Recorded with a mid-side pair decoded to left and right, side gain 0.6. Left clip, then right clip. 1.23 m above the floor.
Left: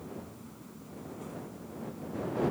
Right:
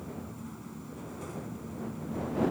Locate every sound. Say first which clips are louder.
0.0 s a fan: right 2 dB; 35° right